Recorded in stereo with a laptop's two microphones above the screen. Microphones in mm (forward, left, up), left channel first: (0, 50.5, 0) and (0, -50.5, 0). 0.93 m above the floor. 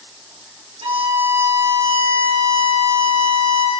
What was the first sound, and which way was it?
A violin, 70° right (ahead or behind).